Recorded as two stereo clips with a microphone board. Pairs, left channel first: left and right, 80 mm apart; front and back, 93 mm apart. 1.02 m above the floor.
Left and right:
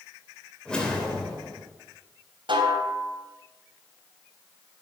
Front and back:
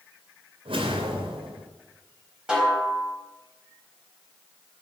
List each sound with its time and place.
0.7 s a whoosh: 170° left, 3 m
2.5 s a snare drum: 95° right, 3.5 m